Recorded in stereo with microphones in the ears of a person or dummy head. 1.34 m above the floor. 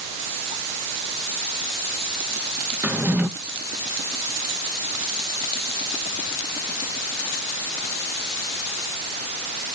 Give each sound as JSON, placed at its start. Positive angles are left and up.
{"t": 2.8, "sound": "a drawer", "side_deg": -10, "distance_m": 0.7}